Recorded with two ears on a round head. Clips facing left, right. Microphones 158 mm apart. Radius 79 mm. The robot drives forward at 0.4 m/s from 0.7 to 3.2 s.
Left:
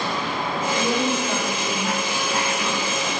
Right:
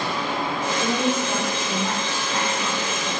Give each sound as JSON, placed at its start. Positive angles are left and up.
{"t": 0.8, "sound": "a woman speaking", "side_deg": 30, "distance_m": 1.4}